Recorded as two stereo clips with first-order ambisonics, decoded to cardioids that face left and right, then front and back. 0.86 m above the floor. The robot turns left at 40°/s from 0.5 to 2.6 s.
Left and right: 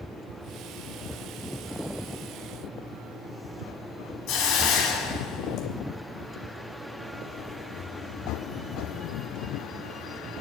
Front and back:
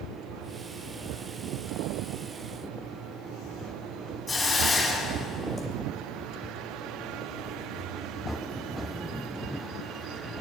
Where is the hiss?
80° left, 1.8 m.